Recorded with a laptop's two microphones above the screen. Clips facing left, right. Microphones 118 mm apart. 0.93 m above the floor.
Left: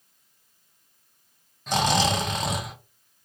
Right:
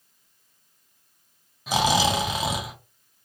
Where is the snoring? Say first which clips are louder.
Right 1 dB; 5° right (ahead or behind), 0.7 m.